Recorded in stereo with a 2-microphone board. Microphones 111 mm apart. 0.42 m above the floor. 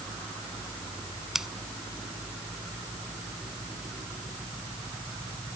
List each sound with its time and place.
1.4 s scissors: 5° right (ahead or behind)